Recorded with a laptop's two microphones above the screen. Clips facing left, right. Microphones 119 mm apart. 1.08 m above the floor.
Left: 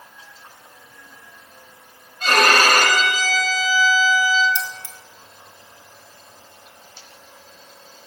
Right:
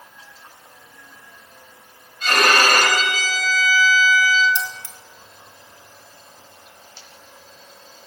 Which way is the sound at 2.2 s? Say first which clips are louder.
Left 1 dB; 45° left (ahead or behind).